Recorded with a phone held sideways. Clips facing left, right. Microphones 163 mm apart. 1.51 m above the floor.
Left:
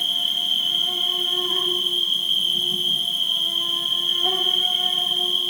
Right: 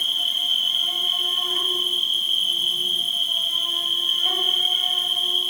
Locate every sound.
0.0 s an insect: 60° left (ahead or behind), 3.5 m